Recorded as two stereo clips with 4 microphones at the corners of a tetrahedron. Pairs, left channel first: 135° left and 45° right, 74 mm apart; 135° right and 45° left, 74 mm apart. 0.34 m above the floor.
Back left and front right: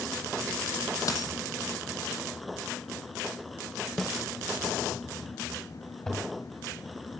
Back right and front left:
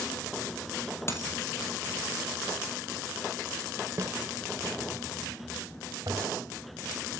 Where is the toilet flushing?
55° left, 2 m.